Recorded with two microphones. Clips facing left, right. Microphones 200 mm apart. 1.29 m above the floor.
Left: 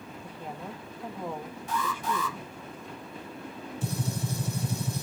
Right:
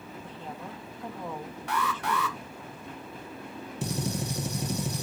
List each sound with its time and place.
0.2 s a woman speaking: 10° left (ahead or behind), 2.0 m
1.7 s an alarm: 70° right (ahead or behind), 1.6 m
3.8 s a gunshot: 75° right (ahead or behind), 2.0 m